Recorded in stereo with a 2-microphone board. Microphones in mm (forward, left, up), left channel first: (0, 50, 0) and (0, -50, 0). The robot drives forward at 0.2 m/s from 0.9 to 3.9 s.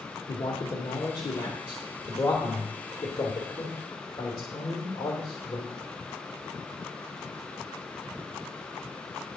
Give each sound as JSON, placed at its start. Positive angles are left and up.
{"t": 0.3, "sound": "a man speaking", "side_deg": 40, "distance_m": 1.2}